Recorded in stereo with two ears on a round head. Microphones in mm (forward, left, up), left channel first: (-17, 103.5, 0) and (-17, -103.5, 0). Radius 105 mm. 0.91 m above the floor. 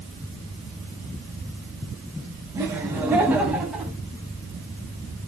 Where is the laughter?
10° right (ahead or behind), 5.5 m; by 3.9 s 5° right (ahead or behind), 6 m.